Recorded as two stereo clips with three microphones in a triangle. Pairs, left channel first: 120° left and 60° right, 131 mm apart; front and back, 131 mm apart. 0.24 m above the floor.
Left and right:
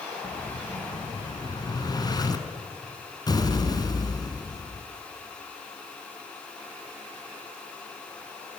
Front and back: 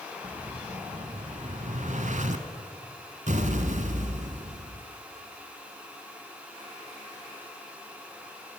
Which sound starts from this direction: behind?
An explosion, at 0.2 s.